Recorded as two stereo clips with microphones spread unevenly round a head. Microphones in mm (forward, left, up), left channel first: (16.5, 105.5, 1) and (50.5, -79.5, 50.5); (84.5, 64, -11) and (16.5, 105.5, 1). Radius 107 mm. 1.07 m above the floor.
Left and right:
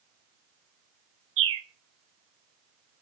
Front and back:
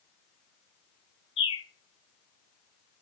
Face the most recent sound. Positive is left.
turn(degrees=-65)